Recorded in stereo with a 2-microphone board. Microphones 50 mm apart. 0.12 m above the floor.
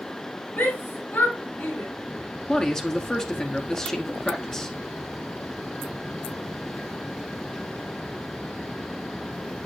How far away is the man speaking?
About 1.1 m.